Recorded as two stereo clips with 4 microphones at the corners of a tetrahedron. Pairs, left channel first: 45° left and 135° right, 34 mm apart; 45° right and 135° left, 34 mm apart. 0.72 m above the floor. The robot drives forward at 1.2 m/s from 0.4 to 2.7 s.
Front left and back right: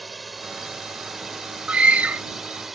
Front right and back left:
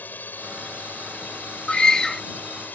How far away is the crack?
No crack in this recording.